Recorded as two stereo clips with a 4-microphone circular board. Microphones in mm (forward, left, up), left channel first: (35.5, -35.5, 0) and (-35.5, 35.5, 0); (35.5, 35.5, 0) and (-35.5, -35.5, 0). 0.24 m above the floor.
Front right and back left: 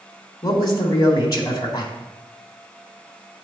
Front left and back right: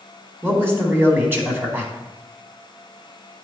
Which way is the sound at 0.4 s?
75° right.